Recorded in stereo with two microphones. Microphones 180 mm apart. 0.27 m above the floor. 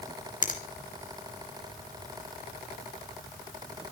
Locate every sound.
0.4 s a finger snap: 50° left (ahead or behind), 2.5 m